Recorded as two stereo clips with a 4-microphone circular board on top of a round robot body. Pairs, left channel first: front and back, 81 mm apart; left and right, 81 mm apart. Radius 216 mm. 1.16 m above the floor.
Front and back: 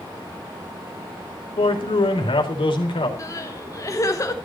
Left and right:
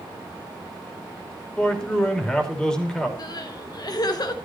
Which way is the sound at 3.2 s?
55° left.